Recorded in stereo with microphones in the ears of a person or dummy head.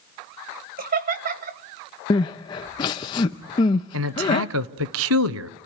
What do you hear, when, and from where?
0.8 s laughter: 40° right (ahead or behind), 1.2 m
2.1 s crying: 25° left (ahead or behind), 0.8 m
3.9 s a man speaking: 70° right (ahead or behind), 0.8 m